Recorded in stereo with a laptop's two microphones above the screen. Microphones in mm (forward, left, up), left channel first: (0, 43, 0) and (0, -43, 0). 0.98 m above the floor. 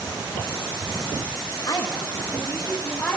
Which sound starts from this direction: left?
A woman speaking, at 1.7 s.